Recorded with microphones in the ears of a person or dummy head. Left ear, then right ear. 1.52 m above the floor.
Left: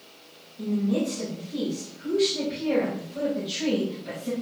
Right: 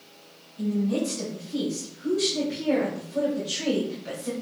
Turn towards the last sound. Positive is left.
turn(degrees=-55)  # may be behind; listen again after turning